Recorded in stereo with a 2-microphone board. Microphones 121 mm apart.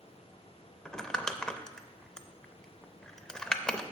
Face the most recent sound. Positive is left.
turn(degrees=5)  # may be behind; listen again after turning